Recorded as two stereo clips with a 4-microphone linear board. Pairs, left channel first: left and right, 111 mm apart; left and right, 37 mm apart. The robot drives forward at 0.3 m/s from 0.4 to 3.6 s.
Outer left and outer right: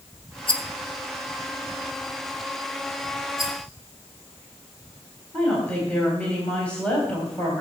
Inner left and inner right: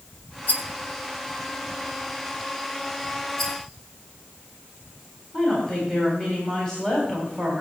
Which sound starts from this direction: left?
A rattle, at 0.5 s.